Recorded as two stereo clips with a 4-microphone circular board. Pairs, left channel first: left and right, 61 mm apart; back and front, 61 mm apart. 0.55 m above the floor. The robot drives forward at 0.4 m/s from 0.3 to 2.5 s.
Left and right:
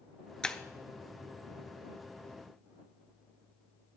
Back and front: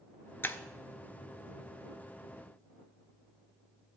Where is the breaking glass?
160° left, 0.6 m.